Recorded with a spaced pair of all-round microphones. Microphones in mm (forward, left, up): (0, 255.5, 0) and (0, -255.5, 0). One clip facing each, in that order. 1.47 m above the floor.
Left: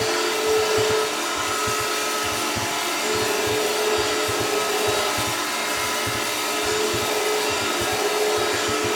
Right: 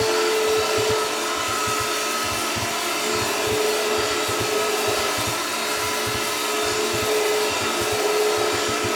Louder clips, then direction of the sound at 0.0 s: Right 3 dB; 20° left (ahead or behind).